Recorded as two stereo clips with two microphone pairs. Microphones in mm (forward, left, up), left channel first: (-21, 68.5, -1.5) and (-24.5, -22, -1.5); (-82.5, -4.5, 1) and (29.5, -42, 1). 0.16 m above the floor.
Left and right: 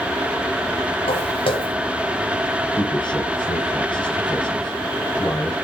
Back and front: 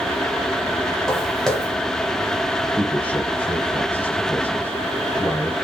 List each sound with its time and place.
1.1 s footsteps: 75° left, 2.5 m
2.7 s a man speaking: 85° left, 3 m